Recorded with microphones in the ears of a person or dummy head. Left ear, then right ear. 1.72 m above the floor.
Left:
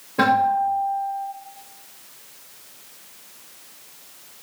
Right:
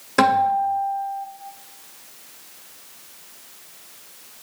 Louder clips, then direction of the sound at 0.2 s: Right 1 dB; 50° right (ahead or behind).